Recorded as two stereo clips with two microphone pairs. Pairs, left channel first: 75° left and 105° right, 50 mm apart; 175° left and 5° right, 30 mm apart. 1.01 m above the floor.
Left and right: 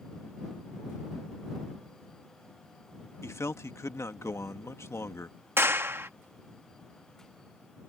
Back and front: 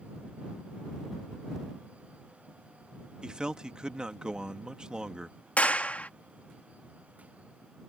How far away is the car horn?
No car horn in this recording.